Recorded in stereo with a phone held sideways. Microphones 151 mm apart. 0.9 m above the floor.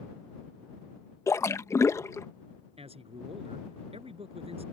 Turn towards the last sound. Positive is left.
turn(degrees=-40)  # may be behind; listen again after turning